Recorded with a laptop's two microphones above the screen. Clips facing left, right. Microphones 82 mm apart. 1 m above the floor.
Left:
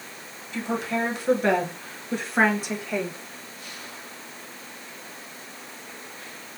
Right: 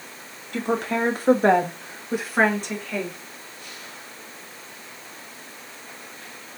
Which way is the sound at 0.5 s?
60° right (ahead or behind).